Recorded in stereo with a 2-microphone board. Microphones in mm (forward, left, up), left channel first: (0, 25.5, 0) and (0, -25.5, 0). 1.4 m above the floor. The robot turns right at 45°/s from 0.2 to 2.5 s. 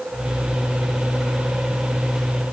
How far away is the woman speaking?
No woman speaking in this recording.